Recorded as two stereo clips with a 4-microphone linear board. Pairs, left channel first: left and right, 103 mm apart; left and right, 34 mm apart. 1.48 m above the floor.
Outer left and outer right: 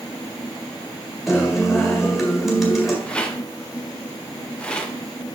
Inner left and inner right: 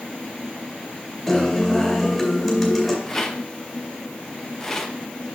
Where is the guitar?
Centre (ahead or behind), 2.0 m.